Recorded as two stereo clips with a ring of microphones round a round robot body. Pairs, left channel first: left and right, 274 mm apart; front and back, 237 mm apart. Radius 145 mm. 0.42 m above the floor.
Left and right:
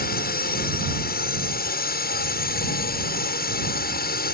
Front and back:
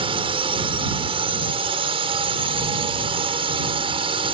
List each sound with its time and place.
0.0 s a drone: 125° left